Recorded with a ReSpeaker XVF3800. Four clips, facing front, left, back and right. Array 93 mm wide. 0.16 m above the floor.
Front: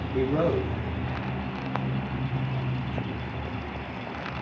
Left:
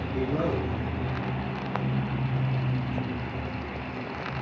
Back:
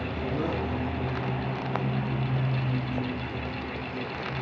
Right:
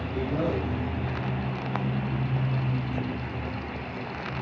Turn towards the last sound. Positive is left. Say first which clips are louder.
# even, front 7 dB
turn(degrees=10)